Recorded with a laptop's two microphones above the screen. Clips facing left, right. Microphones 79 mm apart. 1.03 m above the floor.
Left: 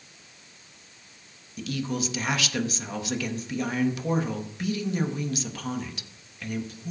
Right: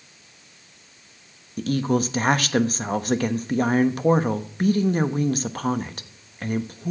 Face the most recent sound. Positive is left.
turn(degrees=-45)  # may be behind; listen again after turning